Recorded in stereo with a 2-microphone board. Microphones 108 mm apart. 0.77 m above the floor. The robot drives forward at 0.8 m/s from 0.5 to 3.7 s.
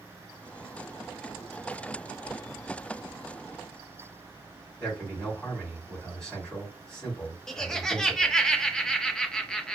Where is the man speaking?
5° left (ahead or behind), 3 m.